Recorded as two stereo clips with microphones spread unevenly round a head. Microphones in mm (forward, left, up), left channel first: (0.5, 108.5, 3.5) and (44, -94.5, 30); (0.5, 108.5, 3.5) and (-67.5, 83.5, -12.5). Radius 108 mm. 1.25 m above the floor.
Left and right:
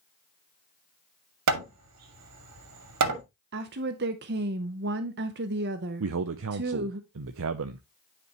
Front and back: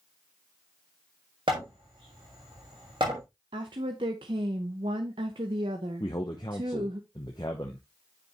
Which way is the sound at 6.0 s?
50° right.